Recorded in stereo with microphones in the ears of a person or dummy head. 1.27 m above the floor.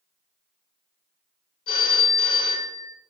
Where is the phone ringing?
75° left (ahead or behind), 1.1 m.